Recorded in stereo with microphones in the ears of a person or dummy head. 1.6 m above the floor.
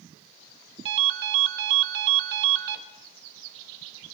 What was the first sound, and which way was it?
A ringtone, 60° right (ahead or behind).